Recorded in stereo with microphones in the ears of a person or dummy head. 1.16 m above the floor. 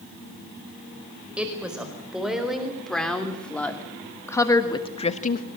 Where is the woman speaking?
10° right (ahead or behind), 5 m; by 5.5 s 45° left (ahead or behind), 1.1 m.